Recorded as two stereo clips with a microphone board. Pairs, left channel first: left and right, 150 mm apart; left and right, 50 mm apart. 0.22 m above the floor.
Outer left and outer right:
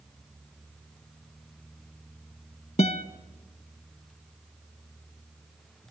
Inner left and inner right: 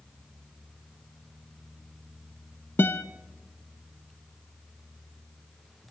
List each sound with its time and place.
2.8 s a guitar: 45° left (ahead or behind), 0.7 m